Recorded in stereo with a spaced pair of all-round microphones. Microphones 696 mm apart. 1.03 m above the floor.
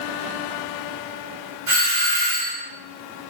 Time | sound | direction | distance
1.7 | a doorbell | 30° right (ahead or behind) | 1.8 m